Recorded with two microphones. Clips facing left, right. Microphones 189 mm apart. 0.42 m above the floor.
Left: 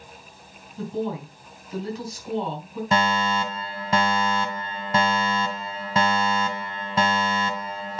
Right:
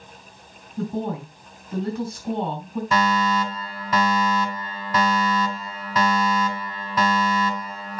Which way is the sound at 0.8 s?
55° right (ahead or behind).